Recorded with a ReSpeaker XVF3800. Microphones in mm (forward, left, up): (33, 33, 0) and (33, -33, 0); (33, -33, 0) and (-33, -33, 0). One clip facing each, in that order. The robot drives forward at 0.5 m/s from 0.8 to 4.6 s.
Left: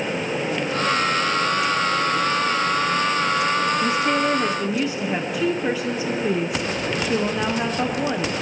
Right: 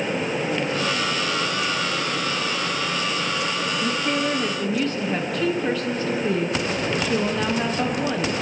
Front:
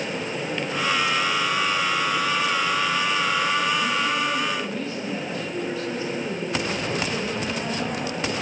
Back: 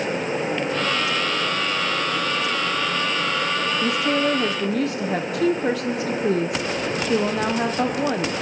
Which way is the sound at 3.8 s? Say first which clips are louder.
Left 3 dB, back 3 dB; 165° left.